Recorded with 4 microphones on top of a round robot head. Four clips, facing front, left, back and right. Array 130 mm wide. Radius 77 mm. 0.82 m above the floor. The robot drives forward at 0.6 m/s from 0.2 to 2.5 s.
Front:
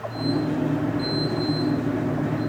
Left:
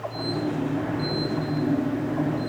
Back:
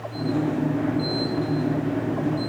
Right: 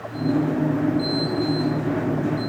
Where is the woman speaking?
I don't hear a woman speaking.